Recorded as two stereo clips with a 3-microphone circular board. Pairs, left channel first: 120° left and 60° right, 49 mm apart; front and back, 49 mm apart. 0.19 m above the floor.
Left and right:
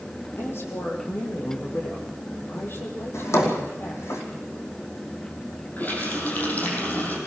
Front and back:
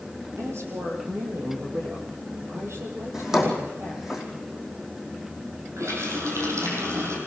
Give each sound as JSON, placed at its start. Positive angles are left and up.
{"t": 0.4, "sound": "a woman speaking", "azimuth_deg": 160, "distance_m": 5.5}
{"t": 3.1, "sound": "a drawer", "azimuth_deg": 100, "distance_m": 5.0}
{"t": 5.8, "sound": "a running tap", "azimuth_deg": 175, "distance_m": 5.0}